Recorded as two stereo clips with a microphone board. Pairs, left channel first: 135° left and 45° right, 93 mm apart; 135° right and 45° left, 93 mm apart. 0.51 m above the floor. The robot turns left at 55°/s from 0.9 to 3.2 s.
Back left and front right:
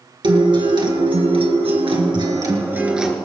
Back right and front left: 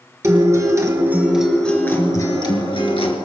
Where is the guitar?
10° right, 2.5 m; by 3.1 s 135° right, 2.5 m.